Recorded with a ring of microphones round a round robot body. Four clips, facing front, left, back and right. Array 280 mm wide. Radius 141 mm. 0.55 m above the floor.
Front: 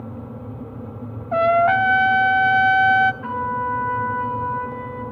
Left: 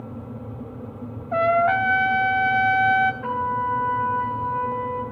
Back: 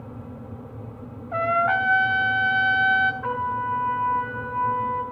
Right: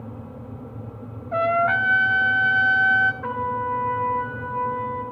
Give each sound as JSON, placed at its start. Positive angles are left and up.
{"t": 1.3, "sound": "a trumpet", "azimuth_deg": 0, "distance_m": 1.4}
{"t": 3.2, "sound": "a trumpet", "azimuth_deg": 45, "distance_m": 5.0}